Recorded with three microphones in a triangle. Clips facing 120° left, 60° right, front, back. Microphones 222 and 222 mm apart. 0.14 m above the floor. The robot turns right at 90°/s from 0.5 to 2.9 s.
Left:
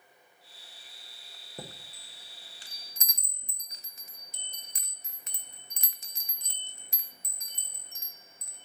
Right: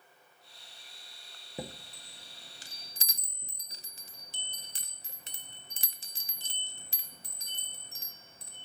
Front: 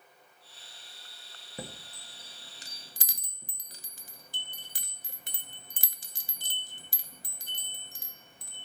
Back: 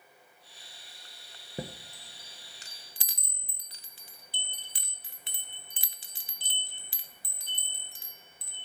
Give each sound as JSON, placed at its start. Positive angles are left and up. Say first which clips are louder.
{"t": 1.6, "sound": "a chime", "louder": "right 4 dB, back 4 dB", "azimuth_deg": -135, "distance_m": 0.6}